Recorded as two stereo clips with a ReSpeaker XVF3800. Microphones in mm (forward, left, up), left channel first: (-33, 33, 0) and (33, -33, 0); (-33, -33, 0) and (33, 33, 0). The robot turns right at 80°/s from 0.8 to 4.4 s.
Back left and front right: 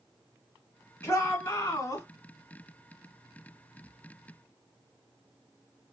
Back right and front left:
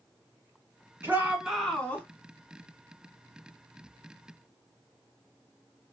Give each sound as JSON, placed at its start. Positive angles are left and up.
{"t": 1.0, "sound": "a shout", "azimuth_deg": 90, "distance_m": 1.6}